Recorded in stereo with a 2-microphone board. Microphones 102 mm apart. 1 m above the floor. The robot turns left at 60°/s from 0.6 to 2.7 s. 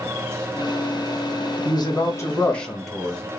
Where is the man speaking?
65° left, 1.3 m; by 3.2 s 5° left, 1.3 m.